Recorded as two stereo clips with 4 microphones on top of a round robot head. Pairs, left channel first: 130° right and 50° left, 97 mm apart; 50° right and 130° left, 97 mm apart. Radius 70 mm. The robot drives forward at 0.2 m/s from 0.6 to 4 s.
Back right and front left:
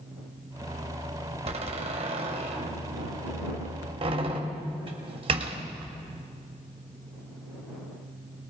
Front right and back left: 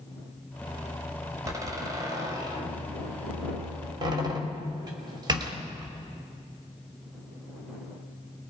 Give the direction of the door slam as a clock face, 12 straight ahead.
10 o'clock.